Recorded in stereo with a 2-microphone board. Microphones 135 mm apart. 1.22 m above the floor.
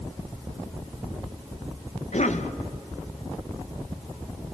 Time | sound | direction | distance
2.1 | a cough | 65° left (ahead or behind) | 1.3 m